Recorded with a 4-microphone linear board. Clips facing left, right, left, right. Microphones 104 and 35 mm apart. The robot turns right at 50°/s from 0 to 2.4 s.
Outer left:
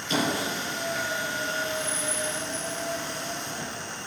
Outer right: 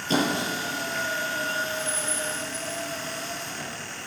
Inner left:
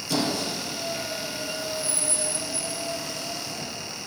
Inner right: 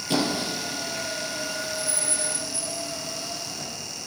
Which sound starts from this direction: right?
A squeak, at 0.1 s.